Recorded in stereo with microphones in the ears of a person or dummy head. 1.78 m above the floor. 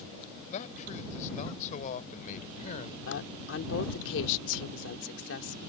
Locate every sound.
0.5 s a man speaking: 40° left (ahead or behind)
3.1 s a woman speaking: 70° left (ahead or behind)